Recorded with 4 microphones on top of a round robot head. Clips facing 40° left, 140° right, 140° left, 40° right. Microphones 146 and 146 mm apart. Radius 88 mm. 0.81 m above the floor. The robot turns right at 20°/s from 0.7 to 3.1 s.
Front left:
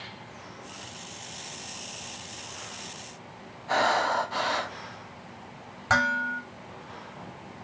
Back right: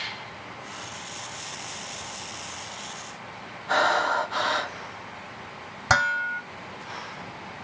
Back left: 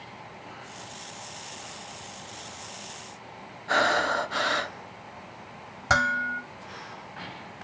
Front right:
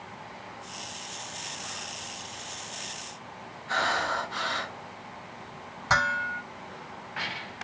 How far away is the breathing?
About 0.7 m.